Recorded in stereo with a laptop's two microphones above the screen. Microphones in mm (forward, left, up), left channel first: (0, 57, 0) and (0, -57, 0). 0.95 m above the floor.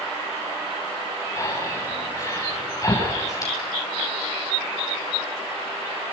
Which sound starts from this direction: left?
Breathing, at 1.4 s.